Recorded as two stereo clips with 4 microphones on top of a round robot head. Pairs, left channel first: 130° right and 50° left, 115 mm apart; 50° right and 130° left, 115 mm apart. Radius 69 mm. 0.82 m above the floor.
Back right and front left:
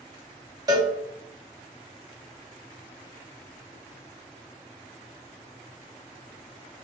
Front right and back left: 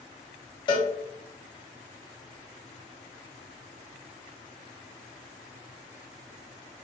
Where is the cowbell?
5° right, 1.0 m.